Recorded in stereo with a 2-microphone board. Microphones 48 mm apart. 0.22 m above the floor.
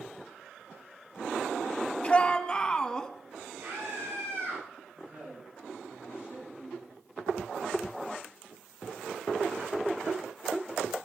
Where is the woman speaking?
35° right (ahead or behind), 8.5 m.